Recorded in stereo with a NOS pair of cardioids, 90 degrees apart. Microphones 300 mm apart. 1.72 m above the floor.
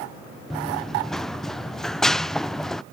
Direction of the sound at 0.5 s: Straight ahead.